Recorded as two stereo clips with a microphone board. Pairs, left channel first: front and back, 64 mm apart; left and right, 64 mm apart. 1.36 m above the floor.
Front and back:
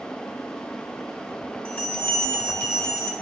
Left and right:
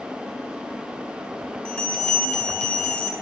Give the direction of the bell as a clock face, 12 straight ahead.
11 o'clock.